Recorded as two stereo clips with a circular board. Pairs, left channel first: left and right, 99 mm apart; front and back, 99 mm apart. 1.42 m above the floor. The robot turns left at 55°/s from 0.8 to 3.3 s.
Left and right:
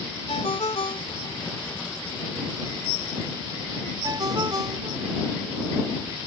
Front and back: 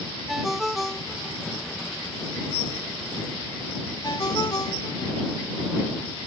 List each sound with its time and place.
0.3 s a ringtone: 90° left; by 5.2 s 45° right